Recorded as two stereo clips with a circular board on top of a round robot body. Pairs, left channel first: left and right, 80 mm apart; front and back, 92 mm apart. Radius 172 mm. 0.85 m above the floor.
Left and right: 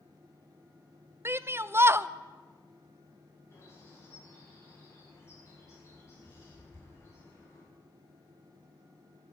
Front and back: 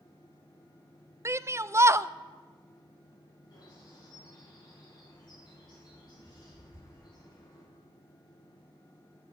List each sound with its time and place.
1.2 s a shout: 135° right, 0.6 m
3.5 s a bird: 40° left, 7 m